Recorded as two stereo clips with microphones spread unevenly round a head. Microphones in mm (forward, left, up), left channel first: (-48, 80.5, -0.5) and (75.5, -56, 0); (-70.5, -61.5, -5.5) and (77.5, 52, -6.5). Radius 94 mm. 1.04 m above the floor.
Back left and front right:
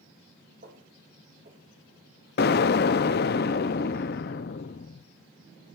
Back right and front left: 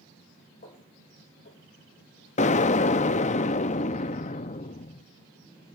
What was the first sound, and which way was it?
Footsteps, 95° right.